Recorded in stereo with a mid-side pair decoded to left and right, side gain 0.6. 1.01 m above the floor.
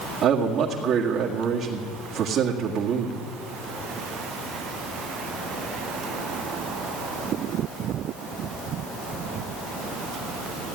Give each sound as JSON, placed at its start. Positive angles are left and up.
{"t": 0.2, "sound": "a man speaking", "azimuth_deg": -55, "distance_m": 2.0}